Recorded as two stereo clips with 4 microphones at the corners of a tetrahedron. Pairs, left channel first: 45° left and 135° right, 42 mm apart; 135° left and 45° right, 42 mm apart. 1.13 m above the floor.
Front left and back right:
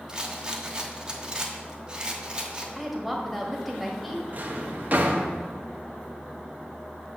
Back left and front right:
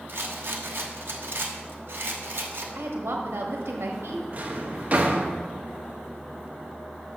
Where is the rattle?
70° right, 1.1 m.